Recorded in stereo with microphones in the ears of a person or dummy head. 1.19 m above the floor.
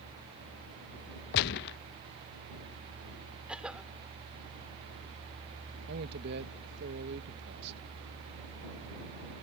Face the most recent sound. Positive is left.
turn(degrees=-55)  # may be behind; listen again after turning